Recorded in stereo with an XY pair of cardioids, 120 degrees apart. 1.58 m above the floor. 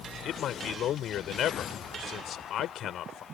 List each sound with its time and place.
0.2 s a man speaking: 60° left